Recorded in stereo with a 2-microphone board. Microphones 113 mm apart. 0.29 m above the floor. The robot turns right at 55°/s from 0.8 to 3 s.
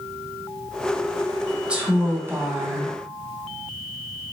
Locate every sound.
1.7 s a woman speaking: 10° right (ahead or behind), 1.2 m; by 2.9 s 30° right (ahead or behind), 1.2 m